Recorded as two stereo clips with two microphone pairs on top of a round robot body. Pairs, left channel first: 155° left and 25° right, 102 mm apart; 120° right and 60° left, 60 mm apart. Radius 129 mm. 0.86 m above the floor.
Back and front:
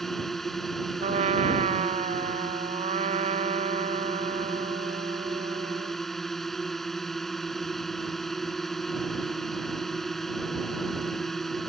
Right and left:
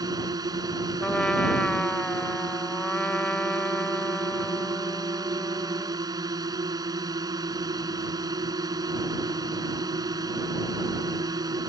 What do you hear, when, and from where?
0.0 s a drone: 65° left
1.0 s a trumpet: 45° right